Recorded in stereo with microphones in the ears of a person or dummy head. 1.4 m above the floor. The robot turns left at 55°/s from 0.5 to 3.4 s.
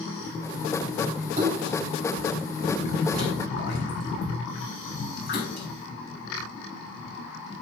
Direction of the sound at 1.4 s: 50° right (ahead or behind).